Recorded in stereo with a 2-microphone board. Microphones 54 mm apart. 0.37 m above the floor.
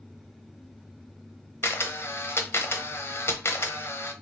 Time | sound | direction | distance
1.6 | a camera shutter | 55° left (ahead or behind) | 0.9 m